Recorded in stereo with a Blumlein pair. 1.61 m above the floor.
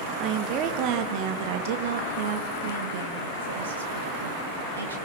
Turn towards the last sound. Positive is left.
turn(degrees=-70)